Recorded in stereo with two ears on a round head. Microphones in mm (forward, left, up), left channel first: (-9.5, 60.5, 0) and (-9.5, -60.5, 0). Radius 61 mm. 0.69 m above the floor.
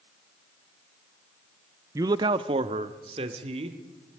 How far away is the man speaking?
About 0.5 m.